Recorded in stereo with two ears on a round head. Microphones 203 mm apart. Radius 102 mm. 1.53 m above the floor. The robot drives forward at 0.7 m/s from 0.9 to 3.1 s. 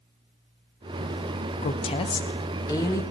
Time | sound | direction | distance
1.6 | a woman speaking | 30° left (ahead or behind) | 0.8 m